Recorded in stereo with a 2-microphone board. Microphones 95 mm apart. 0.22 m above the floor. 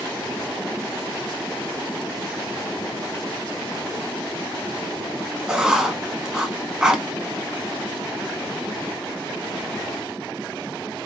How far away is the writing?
About 0.5 m.